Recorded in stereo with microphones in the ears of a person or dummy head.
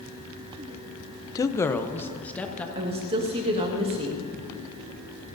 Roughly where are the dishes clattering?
I don't hear dishes clattering.